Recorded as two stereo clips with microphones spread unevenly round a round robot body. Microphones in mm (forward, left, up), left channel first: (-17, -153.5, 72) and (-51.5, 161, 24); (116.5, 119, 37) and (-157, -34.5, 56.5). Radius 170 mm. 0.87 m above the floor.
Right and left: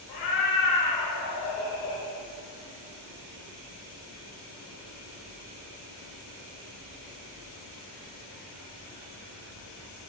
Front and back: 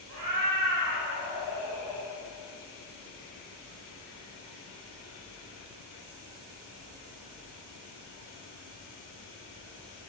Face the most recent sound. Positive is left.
turn(degrees=-75)